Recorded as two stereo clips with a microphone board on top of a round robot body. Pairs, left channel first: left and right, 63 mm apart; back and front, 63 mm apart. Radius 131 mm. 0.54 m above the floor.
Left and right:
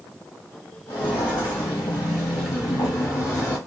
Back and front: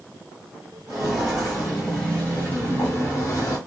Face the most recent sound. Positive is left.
turn(degrees=140)